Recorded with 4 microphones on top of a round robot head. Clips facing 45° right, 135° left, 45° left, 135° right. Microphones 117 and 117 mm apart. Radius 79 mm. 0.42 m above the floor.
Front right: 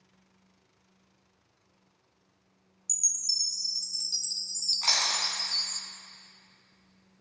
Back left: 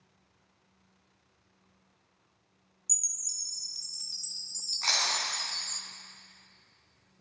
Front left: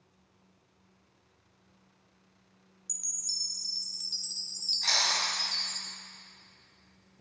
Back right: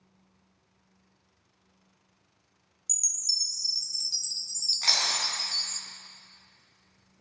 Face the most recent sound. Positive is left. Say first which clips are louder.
# front right 1 dB, even
turn(degrees=-120)